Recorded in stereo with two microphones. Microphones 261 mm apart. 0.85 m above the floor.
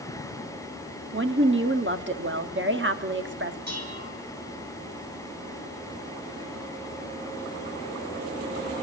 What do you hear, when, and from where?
1.1 s a woman speaking: 45° right (ahead or behind), 1.3 m
3.7 s dishes clattering: 85° right, 6 m